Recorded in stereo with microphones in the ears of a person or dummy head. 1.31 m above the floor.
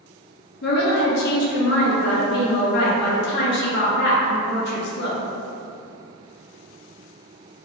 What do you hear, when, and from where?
0.6 s a woman speaking: 55° left (ahead or behind), 0.7 m